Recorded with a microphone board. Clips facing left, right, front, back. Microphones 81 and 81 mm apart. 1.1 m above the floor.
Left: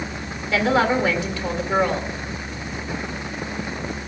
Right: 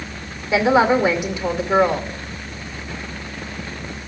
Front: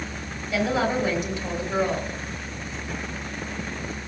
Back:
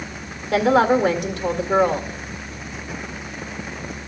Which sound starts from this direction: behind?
A woman speaking, at 0.5 s.